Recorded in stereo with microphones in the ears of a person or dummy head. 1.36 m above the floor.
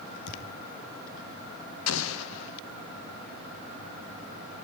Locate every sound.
0.3 s a thud: 80° left, 7 m
1.9 s an explosion: 65° left (ahead or behind), 1.2 m